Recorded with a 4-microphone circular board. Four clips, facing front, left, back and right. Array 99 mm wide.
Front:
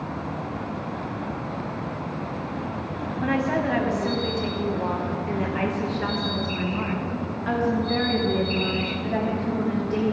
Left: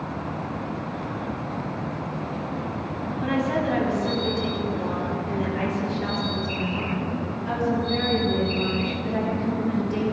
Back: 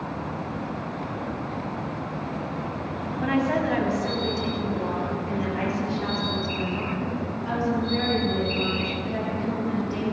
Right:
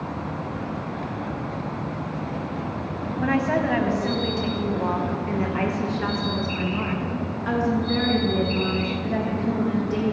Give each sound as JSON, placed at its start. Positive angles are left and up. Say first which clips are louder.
{"t": 3.2, "sound": "a woman speaking", "louder": "right 2 dB, even", "azimuth_deg": -90, "distance_m": 1.5}